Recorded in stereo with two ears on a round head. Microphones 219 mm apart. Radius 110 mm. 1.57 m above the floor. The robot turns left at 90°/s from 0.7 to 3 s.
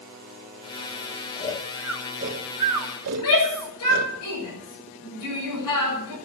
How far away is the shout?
About 7 m.